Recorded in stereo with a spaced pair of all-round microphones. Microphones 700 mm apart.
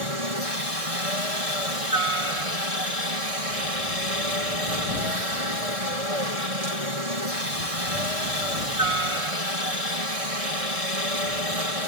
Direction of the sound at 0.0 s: 55° right (ahead or behind).